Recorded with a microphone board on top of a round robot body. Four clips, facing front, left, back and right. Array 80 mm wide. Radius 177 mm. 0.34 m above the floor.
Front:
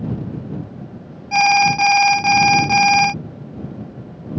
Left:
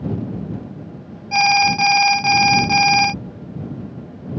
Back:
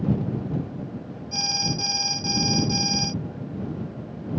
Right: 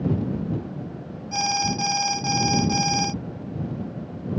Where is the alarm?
30° left.